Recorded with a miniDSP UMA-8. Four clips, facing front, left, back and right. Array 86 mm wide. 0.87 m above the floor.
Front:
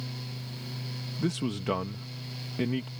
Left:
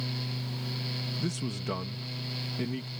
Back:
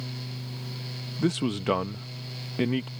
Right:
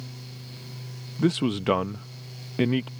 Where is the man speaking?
110° right.